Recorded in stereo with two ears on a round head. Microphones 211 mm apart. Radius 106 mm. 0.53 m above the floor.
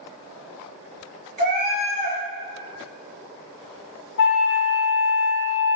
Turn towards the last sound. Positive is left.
turn(degrees=50)  # may be behind; listen again after turning